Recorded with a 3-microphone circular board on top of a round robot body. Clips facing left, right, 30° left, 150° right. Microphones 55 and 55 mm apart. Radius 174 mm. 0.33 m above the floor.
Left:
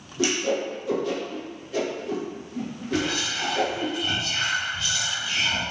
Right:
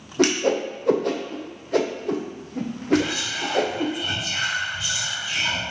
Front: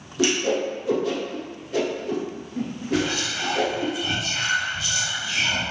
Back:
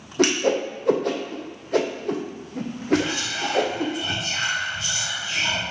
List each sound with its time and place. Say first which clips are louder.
0.2 s a whoosh: right 4 dB, back 2 dB; 120° right, 0.7 m
2.9 s whispering: right 4 dB, back 2 dB; 165° right, 1.5 m